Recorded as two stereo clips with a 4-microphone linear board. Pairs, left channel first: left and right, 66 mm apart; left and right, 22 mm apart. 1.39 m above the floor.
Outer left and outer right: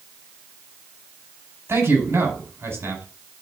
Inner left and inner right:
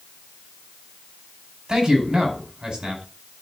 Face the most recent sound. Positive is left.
turn(degrees=-45)  # may be behind; listen again after turning